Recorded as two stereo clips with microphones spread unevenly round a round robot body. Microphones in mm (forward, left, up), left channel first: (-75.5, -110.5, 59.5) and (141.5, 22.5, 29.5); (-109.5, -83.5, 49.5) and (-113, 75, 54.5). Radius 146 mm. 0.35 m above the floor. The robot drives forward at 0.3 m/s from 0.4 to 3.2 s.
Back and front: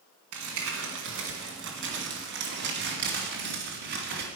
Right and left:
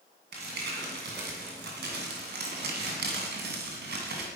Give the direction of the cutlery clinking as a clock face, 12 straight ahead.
I don't hear cutlery clinking.